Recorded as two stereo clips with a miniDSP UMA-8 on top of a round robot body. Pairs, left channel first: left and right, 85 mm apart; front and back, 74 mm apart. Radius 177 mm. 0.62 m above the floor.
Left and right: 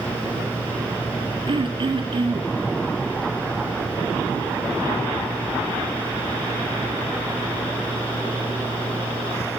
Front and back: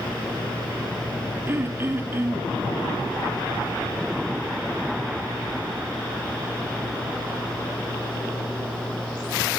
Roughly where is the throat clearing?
Behind right.